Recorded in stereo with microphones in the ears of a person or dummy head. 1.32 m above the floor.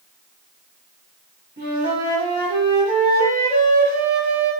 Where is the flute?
25° right (ahead or behind), 1.9 m.